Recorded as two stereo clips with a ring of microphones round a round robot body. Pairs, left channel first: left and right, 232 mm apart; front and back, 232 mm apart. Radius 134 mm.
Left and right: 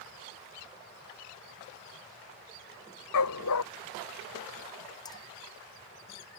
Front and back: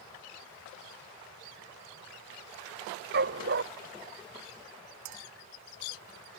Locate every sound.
3.1 s a dog barking: 125° left
5.0 s a clink: 165° left